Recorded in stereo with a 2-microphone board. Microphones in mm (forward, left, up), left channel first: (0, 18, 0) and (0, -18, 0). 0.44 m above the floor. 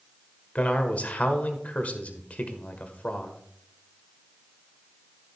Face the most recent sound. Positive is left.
turn(degrees=40)  # may be behind; listen again after turning